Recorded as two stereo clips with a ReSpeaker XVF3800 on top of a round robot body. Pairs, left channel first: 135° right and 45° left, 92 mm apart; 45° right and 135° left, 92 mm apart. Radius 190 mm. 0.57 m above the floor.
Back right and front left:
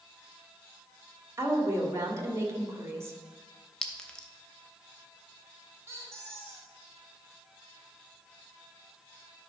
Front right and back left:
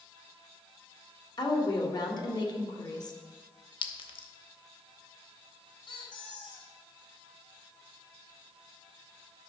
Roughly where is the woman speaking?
Ahead.